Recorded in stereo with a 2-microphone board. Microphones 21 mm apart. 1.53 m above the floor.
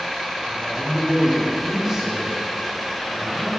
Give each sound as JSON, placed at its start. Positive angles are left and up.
{"t": 0.4, "sound": "a man speaking", "side_deg": -35, "distance_m": 3.5}